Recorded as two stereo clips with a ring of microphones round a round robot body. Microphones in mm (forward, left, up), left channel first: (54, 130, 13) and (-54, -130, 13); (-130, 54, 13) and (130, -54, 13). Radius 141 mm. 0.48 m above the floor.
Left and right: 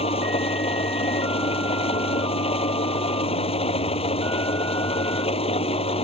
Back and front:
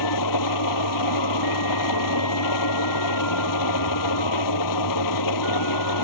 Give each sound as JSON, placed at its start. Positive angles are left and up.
{"t": 0.0, "sound": "an engine running", "azimuth_deg": 140}